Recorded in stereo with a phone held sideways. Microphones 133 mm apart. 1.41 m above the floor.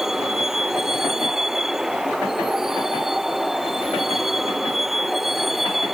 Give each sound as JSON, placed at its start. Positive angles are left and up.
{"t": 0.0, "sound": "a vehicle", "side_deg": -5}